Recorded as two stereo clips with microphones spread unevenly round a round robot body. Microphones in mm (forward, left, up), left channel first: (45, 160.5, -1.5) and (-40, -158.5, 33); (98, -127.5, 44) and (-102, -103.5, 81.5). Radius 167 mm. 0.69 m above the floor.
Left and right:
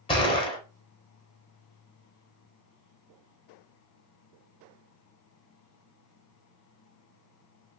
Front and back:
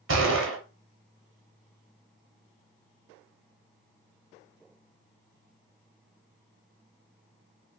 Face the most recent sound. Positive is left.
turn(degrees=150)